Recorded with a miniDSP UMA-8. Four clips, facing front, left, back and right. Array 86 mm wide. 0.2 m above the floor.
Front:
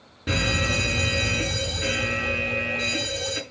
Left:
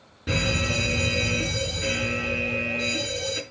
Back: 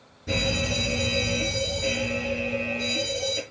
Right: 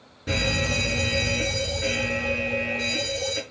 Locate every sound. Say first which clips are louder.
0.3 s a fire alarm: even, front 1 dB; 15° left, 4 m